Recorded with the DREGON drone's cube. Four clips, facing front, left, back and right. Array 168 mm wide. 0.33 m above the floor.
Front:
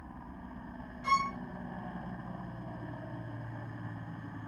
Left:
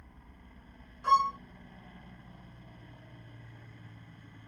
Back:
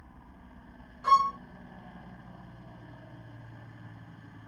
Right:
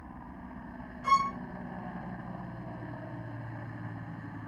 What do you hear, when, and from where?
0.0 s a helicopter: 60° right
1.0 s a violin: 175° left